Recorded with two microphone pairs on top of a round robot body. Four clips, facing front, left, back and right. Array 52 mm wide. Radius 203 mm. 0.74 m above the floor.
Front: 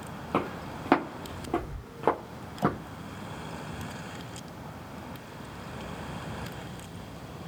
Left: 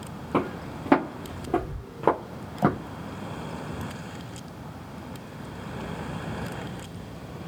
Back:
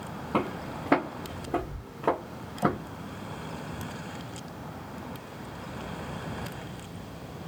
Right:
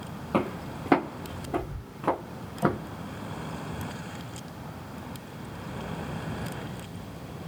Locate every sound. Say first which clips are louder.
0.3 s footsteps: left 1 dB, back 1 dB; 25° right, 1.2 m; by 2.8 s 65° left, 1.1 m